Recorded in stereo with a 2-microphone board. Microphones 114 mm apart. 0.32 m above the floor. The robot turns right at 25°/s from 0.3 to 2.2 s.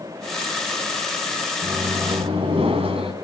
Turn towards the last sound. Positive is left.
turn(degrees=-55)  # may be behind; listen again after turning